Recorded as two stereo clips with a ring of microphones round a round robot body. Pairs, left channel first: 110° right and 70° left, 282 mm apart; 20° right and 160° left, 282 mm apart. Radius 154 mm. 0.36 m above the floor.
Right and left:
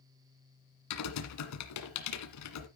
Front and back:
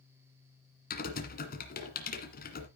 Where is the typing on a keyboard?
85° right, 1.7 m.